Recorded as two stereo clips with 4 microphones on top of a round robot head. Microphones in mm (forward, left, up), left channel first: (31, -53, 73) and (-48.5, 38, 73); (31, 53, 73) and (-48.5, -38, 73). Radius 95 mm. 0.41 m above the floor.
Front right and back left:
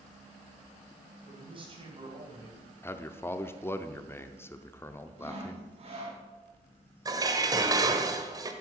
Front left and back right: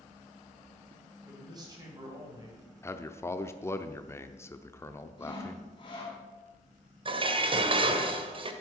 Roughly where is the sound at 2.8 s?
Ahead.